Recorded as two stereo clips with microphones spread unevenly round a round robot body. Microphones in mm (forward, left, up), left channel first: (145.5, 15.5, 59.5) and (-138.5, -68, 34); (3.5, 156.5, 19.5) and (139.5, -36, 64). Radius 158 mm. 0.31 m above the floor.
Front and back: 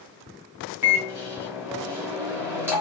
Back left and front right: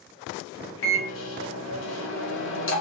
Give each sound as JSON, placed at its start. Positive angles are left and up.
{"t": 0.8, "sound": "a microwave", "azimuth_deg": 115, "distance_m": 1.3}